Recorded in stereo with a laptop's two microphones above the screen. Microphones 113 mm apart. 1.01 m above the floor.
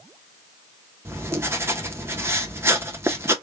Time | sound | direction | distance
1.1 | writing | 20° right (ahead or behind) | 0.7 m